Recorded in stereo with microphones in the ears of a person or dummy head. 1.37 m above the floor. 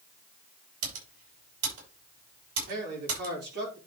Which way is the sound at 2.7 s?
55° right (ahead or behind).